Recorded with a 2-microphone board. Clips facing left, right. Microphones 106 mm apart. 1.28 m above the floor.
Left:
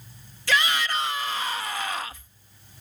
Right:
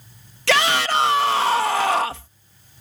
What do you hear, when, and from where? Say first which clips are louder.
0.5 s a shout: right 6 dB; 75° right (ahead or behind)